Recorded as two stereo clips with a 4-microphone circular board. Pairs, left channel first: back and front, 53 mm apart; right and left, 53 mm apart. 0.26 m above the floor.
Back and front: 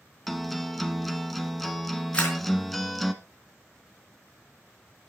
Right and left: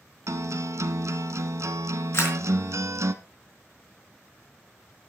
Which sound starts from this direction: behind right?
A camera shutter, at 2.1 s.